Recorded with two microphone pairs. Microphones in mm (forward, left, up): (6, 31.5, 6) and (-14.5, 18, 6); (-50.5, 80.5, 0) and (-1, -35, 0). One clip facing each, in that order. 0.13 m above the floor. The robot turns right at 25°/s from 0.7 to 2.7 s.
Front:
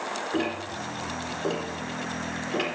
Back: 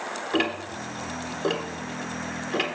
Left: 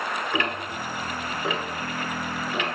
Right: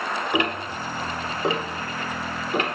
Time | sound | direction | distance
0.3 | ticking | 135° right | 1.0 m